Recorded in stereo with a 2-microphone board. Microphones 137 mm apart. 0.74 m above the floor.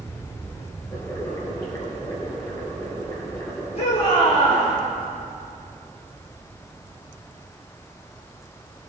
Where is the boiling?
25° left (ahead or behind), 5 m.